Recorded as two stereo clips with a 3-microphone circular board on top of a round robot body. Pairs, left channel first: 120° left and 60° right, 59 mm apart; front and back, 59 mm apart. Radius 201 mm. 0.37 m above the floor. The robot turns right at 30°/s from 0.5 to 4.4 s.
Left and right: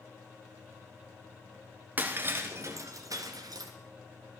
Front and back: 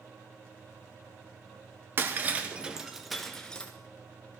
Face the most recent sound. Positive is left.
turn(degrees=-50)